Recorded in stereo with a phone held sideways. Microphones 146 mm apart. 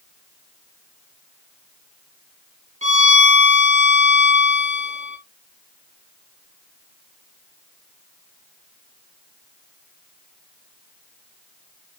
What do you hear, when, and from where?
2.8 s a violin: 50° right (ahead or behind), 1.2 m